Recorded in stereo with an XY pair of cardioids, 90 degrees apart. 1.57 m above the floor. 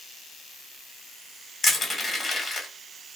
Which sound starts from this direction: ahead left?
Crushing, at 1.6 s.